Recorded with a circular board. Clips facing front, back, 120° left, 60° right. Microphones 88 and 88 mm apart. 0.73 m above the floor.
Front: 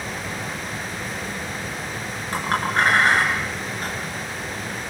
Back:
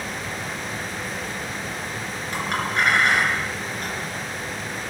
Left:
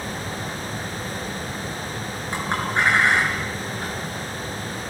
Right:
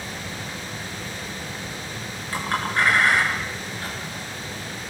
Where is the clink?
50° left, 6 m.